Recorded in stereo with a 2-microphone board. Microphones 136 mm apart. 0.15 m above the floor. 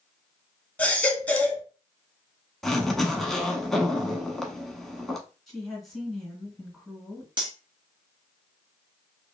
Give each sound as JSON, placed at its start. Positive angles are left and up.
{"t": 0.8, "sound": "a baby crying", "side_deg": 10, "distance_m": 0.8}
{"t": 2.6, "sound": "a zipper", "side_deg": 5, "distance_m": 0.7}
{"t": 5.5, "sound": "a woman speaking", "side_deg": 0, "distance_m": 1.9}
{"t": 7.4, "sound": "cutlery clinking", "side_deg": -35, "distance_m": 1.2}